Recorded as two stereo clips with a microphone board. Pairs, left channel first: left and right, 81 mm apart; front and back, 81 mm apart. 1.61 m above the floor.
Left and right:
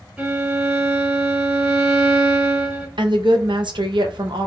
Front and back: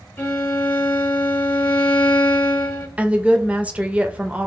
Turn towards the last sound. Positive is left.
turn(degrees=-110)